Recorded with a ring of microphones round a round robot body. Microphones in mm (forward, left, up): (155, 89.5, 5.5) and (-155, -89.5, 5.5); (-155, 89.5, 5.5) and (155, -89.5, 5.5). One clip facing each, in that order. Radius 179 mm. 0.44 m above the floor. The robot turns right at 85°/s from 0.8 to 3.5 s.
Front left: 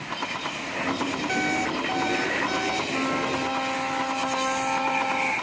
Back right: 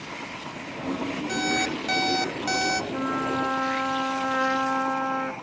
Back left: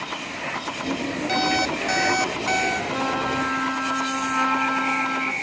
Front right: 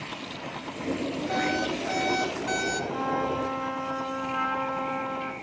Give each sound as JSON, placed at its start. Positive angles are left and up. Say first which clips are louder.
{"t": 1.3, "sound": "an alarm clock", "louder": "even, back left 3 dB", "azimuth_deg": 115, "distance_m": 1.1}
{"t": 2.9, "sound": "a trumpet", "louder": "front left 1 dB, back left 2 dB", "azimuth_deg": 125, "distance_m": 1.9}